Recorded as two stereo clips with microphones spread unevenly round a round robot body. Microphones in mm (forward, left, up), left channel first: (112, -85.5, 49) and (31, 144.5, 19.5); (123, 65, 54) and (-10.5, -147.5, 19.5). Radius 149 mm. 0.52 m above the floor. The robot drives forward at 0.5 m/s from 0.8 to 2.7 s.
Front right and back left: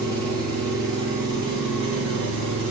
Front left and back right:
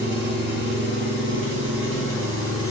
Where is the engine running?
75° right, 4.5 m; by 2.7 s 90° right, 4 m.